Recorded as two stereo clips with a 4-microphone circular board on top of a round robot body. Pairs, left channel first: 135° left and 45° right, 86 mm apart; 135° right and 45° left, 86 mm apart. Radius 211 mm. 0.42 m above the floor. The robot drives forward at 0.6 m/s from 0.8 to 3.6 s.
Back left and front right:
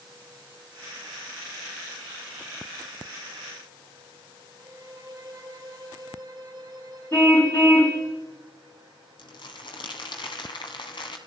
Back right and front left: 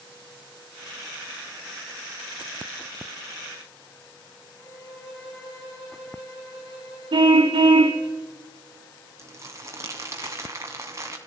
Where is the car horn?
75° left, 2.5 m.